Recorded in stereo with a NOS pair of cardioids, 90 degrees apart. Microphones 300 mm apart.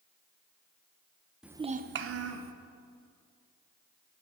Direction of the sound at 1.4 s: Straight ahead.